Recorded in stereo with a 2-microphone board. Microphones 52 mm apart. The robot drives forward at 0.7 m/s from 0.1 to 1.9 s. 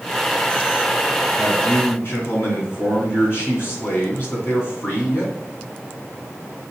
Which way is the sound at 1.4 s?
55° left (ahead or behind).